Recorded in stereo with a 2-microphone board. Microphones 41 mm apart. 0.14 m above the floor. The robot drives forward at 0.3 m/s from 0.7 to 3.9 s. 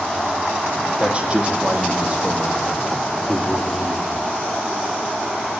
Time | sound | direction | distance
1.0 | a man speaking | 25° right (ahead or behind) | 6 m